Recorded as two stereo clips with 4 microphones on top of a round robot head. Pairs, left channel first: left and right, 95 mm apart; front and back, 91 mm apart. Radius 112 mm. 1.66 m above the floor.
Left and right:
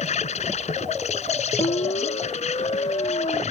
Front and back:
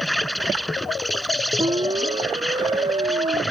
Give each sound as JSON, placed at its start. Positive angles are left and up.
{"t": 0.0, "sound": "an insect", "azimuth_deg": 90}
{"t": 1.6, "sound": "a siren", "azimuth_deg": 135}